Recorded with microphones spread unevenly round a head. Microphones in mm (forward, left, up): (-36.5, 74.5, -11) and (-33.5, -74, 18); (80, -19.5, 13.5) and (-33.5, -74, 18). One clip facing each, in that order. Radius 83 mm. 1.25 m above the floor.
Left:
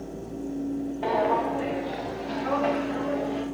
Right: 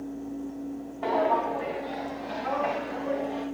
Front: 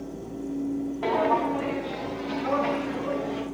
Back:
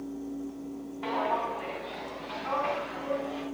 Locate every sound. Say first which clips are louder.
1.0 s footsteps: even, front 6 dB; 15° left, 4.5 m; by 3.4 s 35° left, 7.5 m